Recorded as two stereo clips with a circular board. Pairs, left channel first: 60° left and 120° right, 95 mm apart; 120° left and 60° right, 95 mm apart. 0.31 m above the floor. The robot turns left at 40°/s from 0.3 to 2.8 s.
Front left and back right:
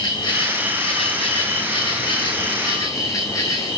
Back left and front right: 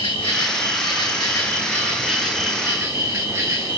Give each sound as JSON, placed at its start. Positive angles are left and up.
{"t": 0.0, "sound": "an insect", "azimuth_deg": 100, "distance_m": 4.0}